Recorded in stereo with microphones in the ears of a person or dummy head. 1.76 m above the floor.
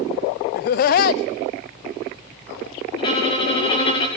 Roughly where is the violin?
Left.